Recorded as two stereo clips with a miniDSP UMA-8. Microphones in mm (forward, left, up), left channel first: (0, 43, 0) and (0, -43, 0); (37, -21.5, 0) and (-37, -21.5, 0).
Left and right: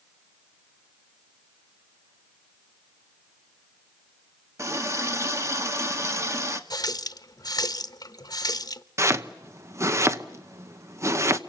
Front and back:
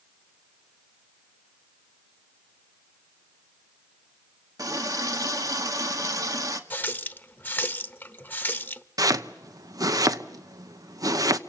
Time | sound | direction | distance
4.6 | a running tap | 145° right | 1.7 m
6.7 | a running tap | 60° left | 1.0 m
9.0 | chopping | 145° right | 1.0 m